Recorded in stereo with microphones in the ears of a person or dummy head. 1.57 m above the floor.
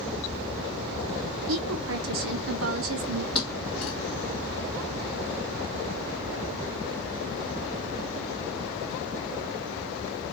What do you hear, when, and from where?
1.5 s a woman speaking: 70° right (ahead or behind), 0.8 m
3.4 s a thud: 5° left (ahead or behind), 0.8 m